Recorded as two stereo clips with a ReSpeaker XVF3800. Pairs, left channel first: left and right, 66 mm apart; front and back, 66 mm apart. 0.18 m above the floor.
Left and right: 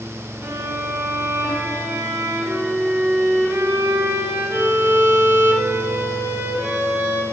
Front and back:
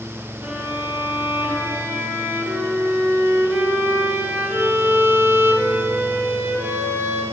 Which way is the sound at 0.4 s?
120° right.